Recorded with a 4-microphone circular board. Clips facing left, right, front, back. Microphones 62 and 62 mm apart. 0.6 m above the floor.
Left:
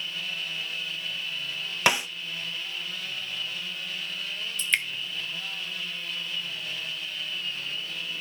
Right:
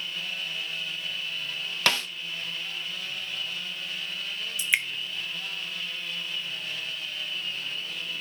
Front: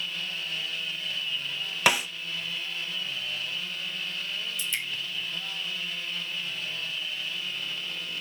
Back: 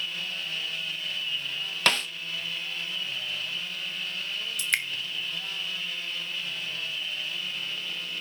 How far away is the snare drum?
About 0.5 m.